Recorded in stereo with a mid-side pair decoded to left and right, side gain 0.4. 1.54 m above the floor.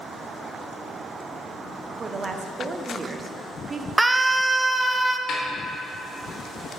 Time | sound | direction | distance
2.0 | a woman speaking | 40° right | 1.0 m
4.0 | a scream | 20° right | 0.7 m
5.3 | a snare drum | 65° left | 2.5 m